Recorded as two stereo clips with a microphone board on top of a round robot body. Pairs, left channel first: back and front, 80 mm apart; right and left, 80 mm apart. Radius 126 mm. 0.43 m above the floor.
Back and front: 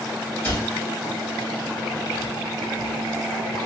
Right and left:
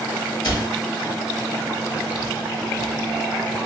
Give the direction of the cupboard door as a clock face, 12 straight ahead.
4 o'clock.